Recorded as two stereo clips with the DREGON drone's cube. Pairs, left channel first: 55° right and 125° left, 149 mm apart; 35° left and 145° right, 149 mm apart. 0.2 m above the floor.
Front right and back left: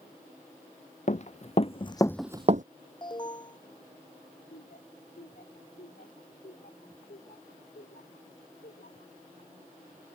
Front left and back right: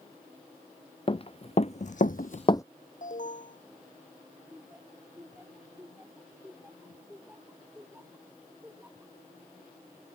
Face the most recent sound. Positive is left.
turn(degrees=-65)